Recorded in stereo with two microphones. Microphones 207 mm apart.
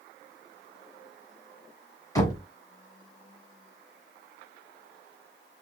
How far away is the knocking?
About 1.6 m.